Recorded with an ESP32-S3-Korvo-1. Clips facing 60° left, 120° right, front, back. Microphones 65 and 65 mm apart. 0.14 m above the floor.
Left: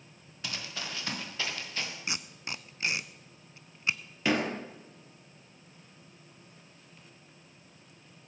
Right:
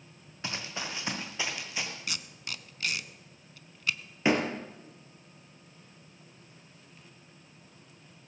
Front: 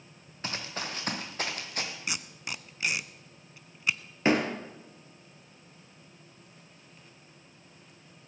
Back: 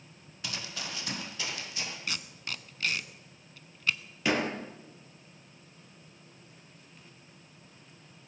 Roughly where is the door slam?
Ahead right.